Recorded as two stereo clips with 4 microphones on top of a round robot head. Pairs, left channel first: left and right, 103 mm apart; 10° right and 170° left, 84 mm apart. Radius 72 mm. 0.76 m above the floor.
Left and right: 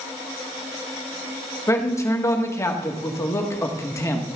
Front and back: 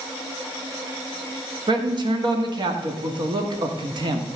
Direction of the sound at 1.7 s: 150° left.